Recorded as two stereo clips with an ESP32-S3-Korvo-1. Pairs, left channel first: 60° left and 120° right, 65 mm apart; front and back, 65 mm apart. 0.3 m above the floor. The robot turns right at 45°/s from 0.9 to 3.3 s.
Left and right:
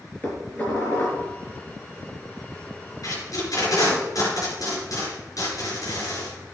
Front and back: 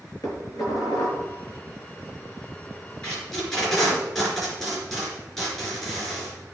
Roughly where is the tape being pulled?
Left.